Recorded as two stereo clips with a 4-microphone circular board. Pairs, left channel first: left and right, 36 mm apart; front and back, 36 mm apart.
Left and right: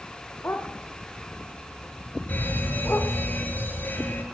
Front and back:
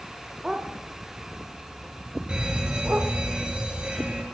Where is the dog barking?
100° left, 4 m; by 3.1 s 130° left, 6 m.